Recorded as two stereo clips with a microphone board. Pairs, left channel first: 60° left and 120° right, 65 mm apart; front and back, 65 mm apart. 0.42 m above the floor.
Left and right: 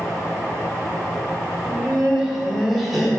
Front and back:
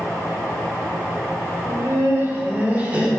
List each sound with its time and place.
1.6 s laughter: 160° left, 1.7 m; by 3.1 s 145° left, 1.2 m